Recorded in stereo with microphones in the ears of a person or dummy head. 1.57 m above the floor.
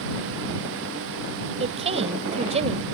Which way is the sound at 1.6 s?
35° right (ahead or behind).